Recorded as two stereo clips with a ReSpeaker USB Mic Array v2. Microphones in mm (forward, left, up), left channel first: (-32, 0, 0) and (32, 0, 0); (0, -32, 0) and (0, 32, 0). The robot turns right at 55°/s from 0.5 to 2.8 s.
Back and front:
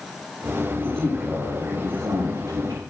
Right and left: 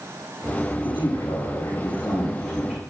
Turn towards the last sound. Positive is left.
turn(degrees=5)